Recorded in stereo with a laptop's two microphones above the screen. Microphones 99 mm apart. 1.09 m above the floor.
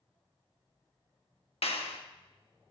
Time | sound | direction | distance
1.6 | a clap | 80° left | 1.2 m